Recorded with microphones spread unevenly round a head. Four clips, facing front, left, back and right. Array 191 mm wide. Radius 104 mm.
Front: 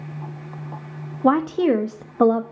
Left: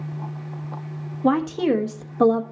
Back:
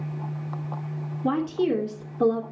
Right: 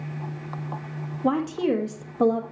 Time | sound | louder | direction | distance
1.2 | a woman speaking | left 3 dB, front 6 dB | 10° left | 1.2 m